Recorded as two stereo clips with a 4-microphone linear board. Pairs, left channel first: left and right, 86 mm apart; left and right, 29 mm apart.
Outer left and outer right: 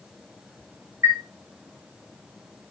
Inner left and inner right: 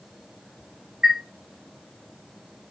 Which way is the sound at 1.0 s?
35° right (ahead or behind).